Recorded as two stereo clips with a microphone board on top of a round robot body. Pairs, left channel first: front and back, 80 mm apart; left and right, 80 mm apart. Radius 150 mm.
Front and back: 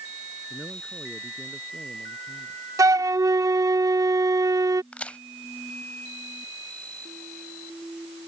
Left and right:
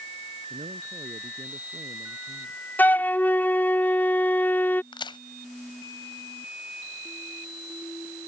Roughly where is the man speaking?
Right.